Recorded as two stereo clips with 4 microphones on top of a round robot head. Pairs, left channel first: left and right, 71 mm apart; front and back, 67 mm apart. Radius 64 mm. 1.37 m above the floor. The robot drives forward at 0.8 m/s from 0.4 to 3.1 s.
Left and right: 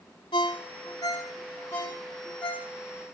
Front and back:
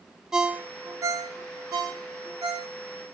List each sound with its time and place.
0.3 s a ringtone: 105° left, 0.5 m; by 2.7 s 170° left, 2 m